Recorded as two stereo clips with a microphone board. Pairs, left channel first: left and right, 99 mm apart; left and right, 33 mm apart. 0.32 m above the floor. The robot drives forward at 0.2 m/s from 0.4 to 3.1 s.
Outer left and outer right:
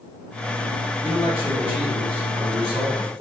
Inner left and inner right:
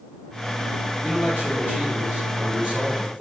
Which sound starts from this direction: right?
A man speaking, at 1.0 s.